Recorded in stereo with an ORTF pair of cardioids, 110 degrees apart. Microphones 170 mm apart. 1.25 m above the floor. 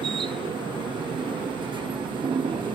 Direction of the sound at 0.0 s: 30° right.